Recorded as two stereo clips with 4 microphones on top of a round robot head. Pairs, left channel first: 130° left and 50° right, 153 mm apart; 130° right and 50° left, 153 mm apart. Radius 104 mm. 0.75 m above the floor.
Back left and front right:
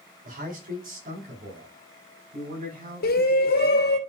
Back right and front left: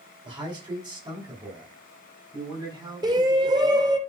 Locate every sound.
0.2 s a man speaking: 15° right, 5.5 m
3.0 s a shout: 115° left, 2.5 m